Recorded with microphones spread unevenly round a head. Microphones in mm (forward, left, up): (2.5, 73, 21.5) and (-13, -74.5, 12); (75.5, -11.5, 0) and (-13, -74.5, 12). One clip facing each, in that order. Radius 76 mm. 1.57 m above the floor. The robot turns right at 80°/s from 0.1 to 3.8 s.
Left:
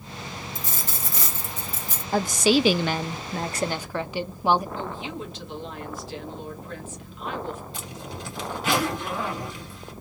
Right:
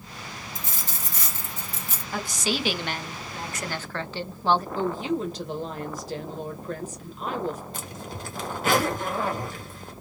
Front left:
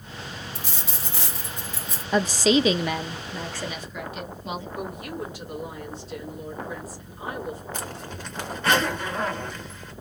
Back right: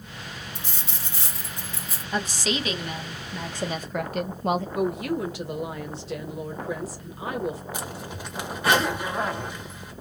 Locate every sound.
0.6 s a dropped coin: 25° left, 1.7 m; by 2.0 s 140° left, 1.7 m
2.1 s a woman speaking: 25° left, 0.5 m; by 4.7 s 160° left, 0.5 m
4.8 s a woman speaking: 150° right, 1.1 m
7.7 s a zipper: 85° right, 1.5 m